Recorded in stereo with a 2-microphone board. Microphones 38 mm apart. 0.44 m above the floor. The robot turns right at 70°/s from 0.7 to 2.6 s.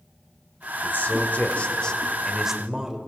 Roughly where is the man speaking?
Left.